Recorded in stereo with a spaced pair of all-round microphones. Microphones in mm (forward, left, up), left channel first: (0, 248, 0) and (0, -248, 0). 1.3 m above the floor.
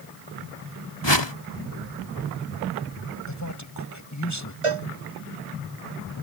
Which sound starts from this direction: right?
A cowbell, at 4.6 s.